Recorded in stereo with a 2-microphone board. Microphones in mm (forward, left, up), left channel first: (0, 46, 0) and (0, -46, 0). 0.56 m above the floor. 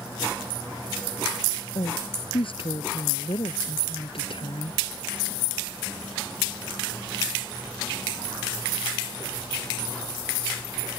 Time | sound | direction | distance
1.8 | a woman speaking | 70° left (ahead or behind) | ?